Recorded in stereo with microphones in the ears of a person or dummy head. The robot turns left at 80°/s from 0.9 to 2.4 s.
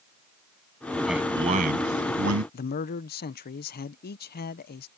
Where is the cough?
No cough in this recording.